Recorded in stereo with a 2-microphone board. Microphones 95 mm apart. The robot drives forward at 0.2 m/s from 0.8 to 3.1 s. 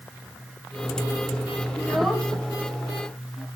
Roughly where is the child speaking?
Centre.